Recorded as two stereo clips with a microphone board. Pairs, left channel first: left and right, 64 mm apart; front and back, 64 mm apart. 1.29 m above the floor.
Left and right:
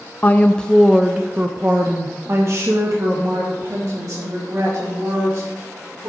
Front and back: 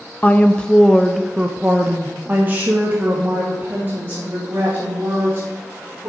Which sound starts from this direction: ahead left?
A woman speaking, at 0.2 s.